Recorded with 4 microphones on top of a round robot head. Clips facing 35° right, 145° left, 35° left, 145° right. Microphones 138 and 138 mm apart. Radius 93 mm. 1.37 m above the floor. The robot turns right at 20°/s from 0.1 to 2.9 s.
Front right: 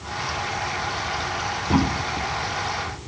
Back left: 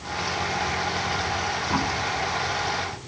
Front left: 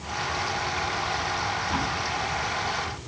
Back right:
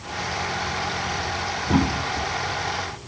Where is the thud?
100° right; by 2.3 s 85° right.